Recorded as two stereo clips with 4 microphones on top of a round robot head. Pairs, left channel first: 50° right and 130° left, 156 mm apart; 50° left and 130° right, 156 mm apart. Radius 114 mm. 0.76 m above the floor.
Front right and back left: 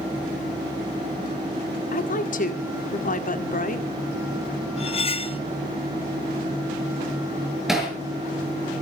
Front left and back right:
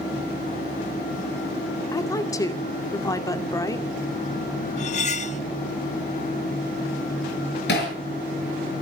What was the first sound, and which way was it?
A woman speaking, 20° right.